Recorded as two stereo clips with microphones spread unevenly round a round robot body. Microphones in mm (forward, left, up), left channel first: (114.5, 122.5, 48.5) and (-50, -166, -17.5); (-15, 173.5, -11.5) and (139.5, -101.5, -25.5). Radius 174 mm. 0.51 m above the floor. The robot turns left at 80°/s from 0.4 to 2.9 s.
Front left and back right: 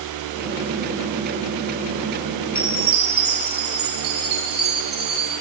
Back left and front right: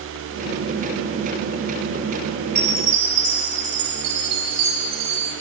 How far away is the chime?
About 3 m.